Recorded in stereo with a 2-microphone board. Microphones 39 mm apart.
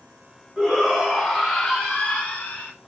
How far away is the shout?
About 1.9 m.